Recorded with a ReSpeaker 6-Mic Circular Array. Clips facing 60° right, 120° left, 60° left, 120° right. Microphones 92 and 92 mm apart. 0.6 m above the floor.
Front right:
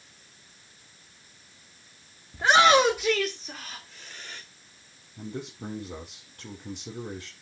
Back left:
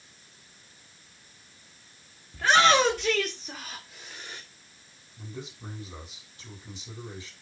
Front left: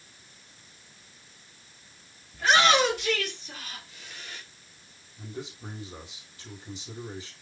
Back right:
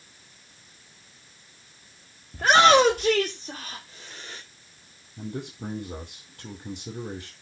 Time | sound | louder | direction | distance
2.3 | a shout | front right 2 dB, back right 5 dB | 115° right | 1.5 m
5.2 | a man speaking | front right 5 dB, back right 5 dB | 90° right | 9.5 m